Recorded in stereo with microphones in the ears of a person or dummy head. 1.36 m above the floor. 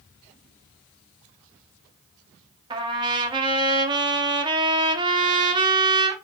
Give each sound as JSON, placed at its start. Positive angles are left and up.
{"t": 2.7, "sound": "a trumpet", "side_deg": -25, "distance_m": 0.6}